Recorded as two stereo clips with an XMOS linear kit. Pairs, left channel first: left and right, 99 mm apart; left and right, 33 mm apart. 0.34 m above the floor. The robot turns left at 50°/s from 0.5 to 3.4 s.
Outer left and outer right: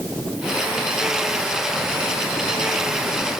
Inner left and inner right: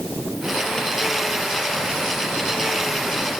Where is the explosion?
No explosion in this recording.